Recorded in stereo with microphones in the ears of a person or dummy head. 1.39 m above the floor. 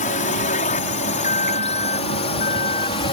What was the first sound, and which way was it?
A drone, 40° left (ahead or behind).